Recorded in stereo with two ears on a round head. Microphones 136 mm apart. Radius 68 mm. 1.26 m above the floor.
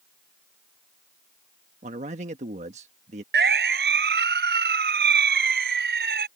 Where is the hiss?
No hiss in this recording.